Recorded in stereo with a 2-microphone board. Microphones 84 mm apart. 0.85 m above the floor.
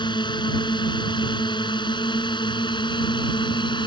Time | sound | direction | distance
0.0 | a drone | 65° left (ahead or behind) | ?